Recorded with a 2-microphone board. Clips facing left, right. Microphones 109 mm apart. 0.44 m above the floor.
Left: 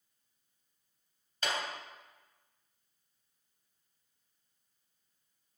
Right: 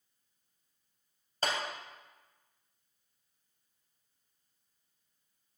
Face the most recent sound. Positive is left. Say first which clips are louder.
# right 2 dB
turn(degrees=-40)  # may be behind; listen again after turning